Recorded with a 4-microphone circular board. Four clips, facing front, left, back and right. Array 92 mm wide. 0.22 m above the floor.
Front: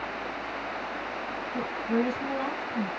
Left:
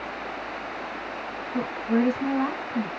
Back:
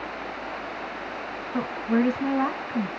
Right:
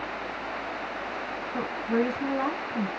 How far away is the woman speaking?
About 1.1 m.